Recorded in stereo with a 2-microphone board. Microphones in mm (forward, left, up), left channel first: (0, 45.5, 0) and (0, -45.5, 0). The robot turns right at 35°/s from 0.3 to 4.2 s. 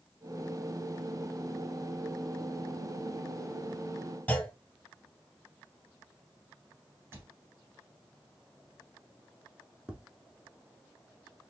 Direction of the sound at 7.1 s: 25° right (ahead or behind).